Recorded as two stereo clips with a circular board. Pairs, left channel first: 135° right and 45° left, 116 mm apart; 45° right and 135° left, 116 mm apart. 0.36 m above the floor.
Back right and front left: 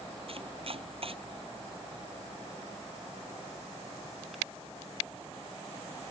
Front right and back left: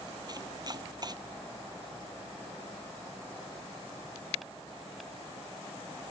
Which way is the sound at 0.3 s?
80° left.